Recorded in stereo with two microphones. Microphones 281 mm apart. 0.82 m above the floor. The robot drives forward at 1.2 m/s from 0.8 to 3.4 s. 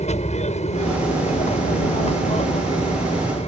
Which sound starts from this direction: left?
An aircraft, at 0.0 s.